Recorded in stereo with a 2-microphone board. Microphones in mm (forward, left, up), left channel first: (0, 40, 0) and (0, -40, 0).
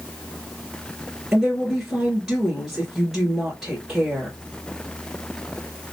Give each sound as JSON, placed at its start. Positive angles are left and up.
{"t": 1.3, "sound": "a woman speaking", "side_deg": -5, "distance_m": 1.9}